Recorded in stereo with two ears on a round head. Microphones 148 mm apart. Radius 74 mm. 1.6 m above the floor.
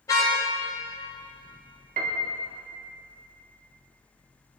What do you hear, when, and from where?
0.1 s a car horn: 20° left (ahead or behind), 3 m
2.0 s a piano: 55° right (ahead or behind), 2 m